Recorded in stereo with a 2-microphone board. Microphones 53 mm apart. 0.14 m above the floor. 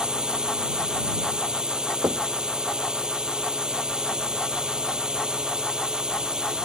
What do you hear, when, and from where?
0.0 s a drone: 20° right (ahead or behind)
2.0 s knocking: 50° right (ahead or behind)